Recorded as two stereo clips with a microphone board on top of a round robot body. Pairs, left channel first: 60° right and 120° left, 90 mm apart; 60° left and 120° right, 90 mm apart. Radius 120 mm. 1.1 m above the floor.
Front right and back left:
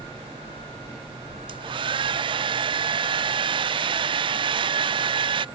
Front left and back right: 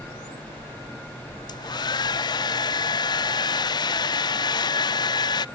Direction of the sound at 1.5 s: 100° left.